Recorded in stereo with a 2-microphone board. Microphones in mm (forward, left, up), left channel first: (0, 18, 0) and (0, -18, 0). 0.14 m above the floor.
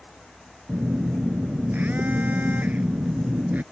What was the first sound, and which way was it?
A phone buzzing, 60° right (ahead or behind).